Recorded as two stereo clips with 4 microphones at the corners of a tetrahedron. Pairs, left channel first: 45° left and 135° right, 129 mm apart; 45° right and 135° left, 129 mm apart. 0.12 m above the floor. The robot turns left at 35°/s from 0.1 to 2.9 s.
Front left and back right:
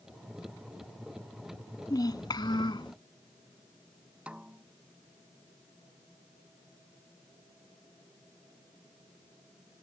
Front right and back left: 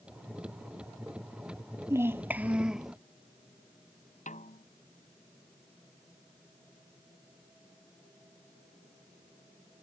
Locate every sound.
1.9 s a child speaking: 85° left; by 2.9 s 50° left
4.3 s a snare drum: 55° right